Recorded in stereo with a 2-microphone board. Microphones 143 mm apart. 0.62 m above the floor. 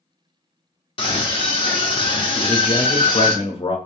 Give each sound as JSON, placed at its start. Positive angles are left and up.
{"t": 1.0, "sound": "a scream", "side_deg": 40, "distance_m": 0.7}
{"t": 2.4, "sound": "a man speaking", "side_deg": 40, "distance_m": 1.0}